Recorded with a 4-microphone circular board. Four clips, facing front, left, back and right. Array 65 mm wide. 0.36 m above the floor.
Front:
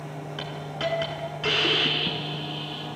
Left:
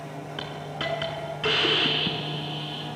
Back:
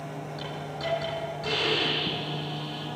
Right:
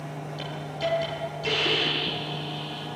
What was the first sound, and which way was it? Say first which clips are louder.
A hiss: right 2 dB, front 5 dB; 60° left.